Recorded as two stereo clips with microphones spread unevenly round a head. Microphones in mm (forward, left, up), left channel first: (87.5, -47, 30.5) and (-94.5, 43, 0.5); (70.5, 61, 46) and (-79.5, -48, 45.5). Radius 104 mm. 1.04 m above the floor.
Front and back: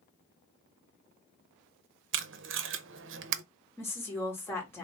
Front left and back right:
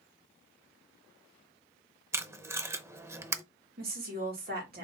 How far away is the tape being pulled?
About 0.7 m.